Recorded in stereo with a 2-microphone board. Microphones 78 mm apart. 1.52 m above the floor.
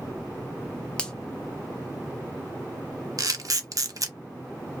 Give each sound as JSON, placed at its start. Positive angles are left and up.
{"t": 1.0, "sound": "a finger snap", "side_deg": 15, "distance_m": 0.7}
{"t": 3.2, "sound": "a camera shutter", "side_deg": -55, "distance_m": 0.5}